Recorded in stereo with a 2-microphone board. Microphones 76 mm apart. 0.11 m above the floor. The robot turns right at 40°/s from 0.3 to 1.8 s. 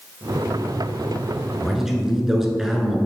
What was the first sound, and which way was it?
A man speaking, 5° right (ahead or behind).